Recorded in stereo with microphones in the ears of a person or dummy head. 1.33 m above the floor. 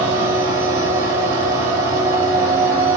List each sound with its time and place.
0.0 s a machine running: 10° right (ahead or behind), 3 m